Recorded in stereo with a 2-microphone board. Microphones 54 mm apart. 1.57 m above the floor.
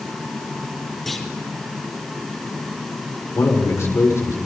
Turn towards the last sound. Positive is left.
turn(degrees=60)  # may be behind; listen again after turning